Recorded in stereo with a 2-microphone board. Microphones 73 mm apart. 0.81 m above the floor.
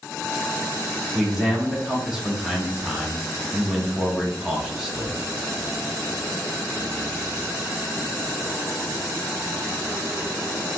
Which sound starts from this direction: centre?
A man speaking, at 1.1 s.